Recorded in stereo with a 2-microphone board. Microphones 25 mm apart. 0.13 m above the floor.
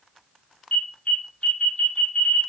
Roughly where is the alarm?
Left.